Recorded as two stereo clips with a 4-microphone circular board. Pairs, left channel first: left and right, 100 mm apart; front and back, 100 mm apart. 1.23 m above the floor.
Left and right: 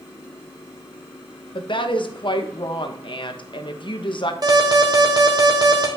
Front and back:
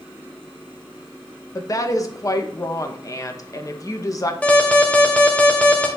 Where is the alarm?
70° right, 1.5 m.